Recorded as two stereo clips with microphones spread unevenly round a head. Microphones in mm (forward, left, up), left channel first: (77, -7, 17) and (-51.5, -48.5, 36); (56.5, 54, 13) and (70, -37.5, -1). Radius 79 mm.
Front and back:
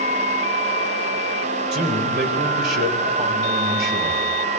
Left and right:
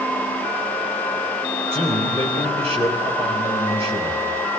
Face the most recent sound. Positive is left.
turn(degrees=175)